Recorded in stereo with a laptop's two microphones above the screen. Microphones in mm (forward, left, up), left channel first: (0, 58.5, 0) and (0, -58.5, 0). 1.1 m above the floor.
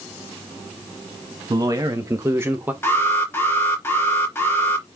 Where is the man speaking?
35° right (ahead or behind), 1.6 m; by 2.7 s 15° right (ahead or behind), 1.1 m.